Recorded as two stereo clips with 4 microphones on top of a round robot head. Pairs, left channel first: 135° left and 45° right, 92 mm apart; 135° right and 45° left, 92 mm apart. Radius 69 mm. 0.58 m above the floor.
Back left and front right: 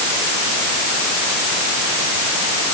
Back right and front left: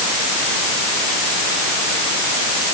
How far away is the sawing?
I don't hear sawing.